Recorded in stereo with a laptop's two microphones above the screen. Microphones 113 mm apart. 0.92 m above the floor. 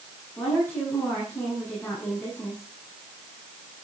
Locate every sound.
0.4 s a woman speaking: 15° left (ahead or behind), 8.5 m